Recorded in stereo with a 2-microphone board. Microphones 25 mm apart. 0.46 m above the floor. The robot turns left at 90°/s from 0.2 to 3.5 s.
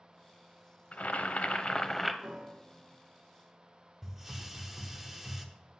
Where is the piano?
55° right (ahead or behind), 1.0 m; by 3.0 s 30° right (ahead or behind), 1.0 m.